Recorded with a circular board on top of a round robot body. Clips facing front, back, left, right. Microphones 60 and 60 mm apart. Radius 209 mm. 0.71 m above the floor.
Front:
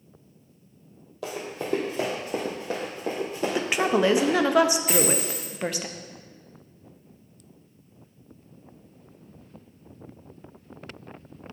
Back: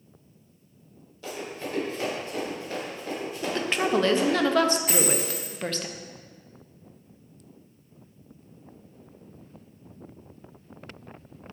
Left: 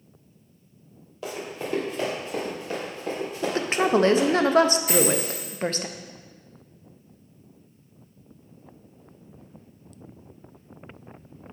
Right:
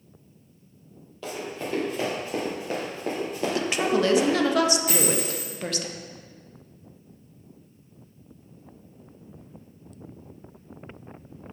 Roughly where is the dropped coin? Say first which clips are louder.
Front 2 dB, left 3 dB; behind right.